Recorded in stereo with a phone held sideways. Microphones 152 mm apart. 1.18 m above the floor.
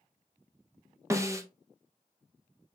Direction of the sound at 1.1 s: 20° right (ahead or behind).